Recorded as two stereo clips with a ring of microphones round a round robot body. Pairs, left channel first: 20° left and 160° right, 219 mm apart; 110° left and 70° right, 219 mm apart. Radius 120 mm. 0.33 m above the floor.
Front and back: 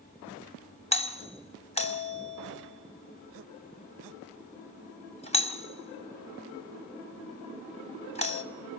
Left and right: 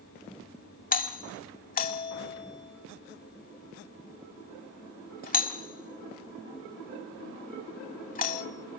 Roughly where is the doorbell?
Left.